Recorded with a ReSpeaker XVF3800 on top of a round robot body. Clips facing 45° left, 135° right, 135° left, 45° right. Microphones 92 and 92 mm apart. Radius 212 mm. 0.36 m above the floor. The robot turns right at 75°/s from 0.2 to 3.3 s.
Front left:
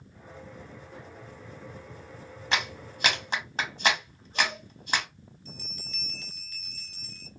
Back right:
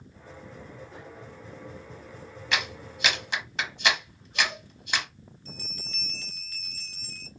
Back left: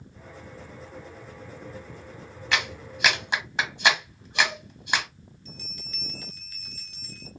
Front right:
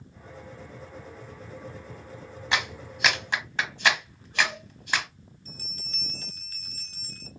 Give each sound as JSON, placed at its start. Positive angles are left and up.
{"t": 2.5, "sound": "a clap", "azimuth_deg": 10, "distance_m": 1.3}
{"t": 5.5, "sound": "a bell", "azimuth_deg": -95, "distance_m": 0.7}